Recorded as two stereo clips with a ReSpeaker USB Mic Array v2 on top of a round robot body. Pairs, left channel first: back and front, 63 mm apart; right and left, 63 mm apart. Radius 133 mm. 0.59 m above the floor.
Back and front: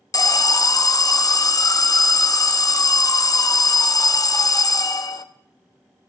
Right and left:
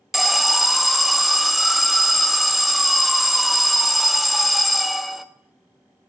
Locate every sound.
0.1 s an alarm: 175° left, 0.6 m